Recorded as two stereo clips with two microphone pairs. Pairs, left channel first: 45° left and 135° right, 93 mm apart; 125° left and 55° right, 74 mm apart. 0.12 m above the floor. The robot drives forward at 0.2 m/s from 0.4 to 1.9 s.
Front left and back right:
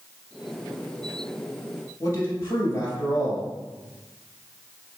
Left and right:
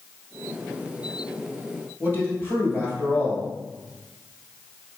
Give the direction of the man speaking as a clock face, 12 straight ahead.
9 o'clock.